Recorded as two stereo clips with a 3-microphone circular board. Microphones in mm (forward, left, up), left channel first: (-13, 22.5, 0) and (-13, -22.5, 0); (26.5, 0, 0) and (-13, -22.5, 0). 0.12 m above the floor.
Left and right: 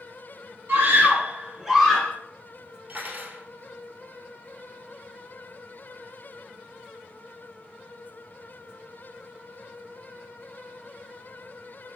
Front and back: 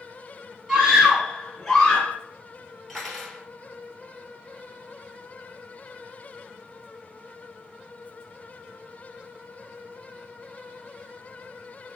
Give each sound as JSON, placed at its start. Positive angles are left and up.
{"t": 0.7, "sound": "a scream", "azimuth_deg": -80, "distance_m": 2.0}
{"t": 2.9, "sound": "cutlery clinking", "azimuth_deg": -60, "distance_m": 1.6}